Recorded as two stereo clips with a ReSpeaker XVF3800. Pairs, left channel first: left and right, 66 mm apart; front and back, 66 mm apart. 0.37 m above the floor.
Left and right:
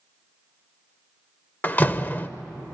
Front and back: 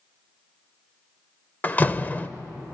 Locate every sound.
1.6 s a door slam: 45° left, 0.6 m